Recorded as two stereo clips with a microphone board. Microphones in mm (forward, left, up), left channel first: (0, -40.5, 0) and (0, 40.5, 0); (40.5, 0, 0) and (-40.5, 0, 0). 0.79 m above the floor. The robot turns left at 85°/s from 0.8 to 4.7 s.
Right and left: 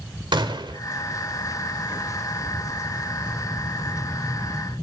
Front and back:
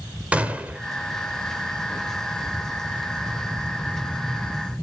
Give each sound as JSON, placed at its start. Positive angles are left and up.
{"t": 0.3, "sound": "a gunshot", "azimuth_deg": 105, "distance_m": 1.6}